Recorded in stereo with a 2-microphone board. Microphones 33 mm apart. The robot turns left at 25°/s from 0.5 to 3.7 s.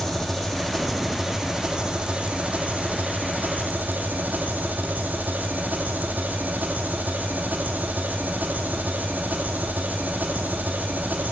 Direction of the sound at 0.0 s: 10° left.